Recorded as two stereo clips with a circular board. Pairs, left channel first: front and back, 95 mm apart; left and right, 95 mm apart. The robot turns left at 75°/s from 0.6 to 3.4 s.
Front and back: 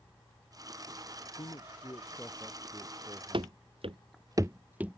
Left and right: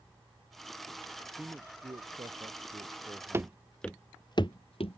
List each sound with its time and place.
1.2 s a man speaking: 5° left; by 3.6 s 160° right
3.3 s running footsteps: 155° right; by 5.0 s 100° left